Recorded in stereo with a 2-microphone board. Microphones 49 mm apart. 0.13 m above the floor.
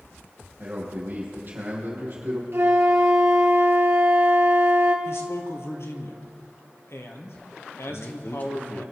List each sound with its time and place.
0.6 s a man speaking: 45° right (ahead or behind), 5 m
2.5 s a flute: 55° right (ahead or behind), 2 m
5.0 s a man speaking: 65° left (ahead or behind), 2.5 m
7.9 s a man speaking: 35° left (ahead or behind), 2.5 m